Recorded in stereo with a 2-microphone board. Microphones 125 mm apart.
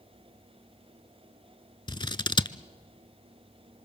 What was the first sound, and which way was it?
Scissors, 40° left (ahead or behind).